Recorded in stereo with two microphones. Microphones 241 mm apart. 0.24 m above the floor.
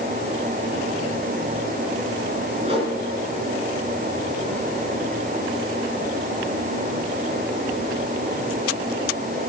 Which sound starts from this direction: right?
A whoosh, at 2.6 s.